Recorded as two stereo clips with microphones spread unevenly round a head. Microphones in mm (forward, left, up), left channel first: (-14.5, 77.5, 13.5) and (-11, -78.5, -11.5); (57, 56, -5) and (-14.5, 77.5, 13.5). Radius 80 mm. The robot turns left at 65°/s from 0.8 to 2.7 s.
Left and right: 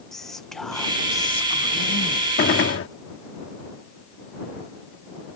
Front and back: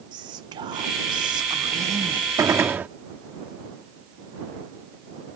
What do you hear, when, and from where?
0.1 s whispering: 175° right; by 2.3 s 90° left
2.4 s a gunshot: 120° left; by 2.9 s 100° left